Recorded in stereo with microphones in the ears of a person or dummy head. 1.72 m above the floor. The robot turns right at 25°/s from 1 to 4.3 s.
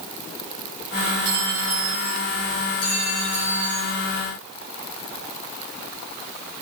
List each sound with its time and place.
1.2 s a clink: 25° right (ahead or behind), 2 m; by 2.2 s 5° right (ahead or behind), 2 m
2.8 s a clink: 50° left (ahead or behind), 3.5 m; by 3.9 s 25° left (ahead or behind), 3.5 m